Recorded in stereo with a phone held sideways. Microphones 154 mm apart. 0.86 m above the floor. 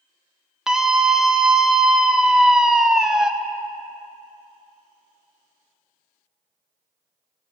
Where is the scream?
5° right (ahead or behind), 0.7 m.